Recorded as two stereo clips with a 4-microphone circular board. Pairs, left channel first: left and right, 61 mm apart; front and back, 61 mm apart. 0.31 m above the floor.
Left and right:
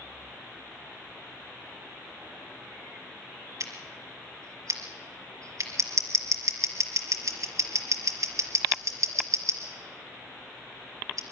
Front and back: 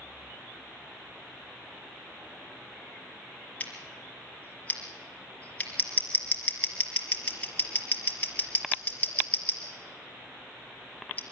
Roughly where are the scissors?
Ahead right.